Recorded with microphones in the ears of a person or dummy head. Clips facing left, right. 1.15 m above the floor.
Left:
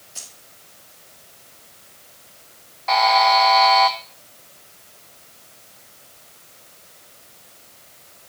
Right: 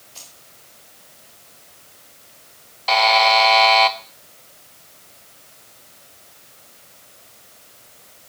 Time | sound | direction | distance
0.1 | keys jangling | 15° left (ahead or behind) | 0.9 m
2.9 | a buzzer | 40° right (ahead or behind) | 0.6 m